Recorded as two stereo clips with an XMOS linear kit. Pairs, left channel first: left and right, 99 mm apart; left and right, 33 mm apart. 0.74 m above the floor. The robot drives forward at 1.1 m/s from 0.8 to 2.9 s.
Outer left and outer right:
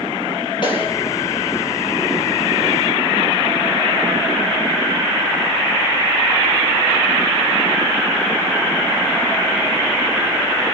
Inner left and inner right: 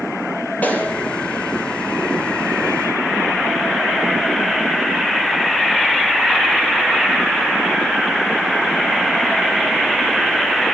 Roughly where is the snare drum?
Left.